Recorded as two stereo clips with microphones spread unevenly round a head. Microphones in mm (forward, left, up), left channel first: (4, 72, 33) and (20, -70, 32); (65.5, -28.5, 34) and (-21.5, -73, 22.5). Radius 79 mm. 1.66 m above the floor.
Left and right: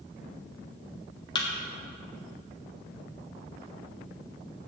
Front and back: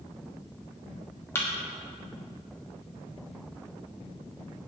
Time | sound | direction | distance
1.4 | a thud | 65° left | 1.2 m